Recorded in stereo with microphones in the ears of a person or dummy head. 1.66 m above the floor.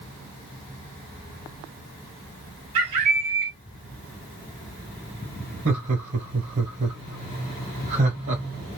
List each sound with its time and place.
2.8 s a bird: 30° right (ahead or behind), 1.1 m
5.7 s laughter: 60° right (ahead or behind), 1.5 m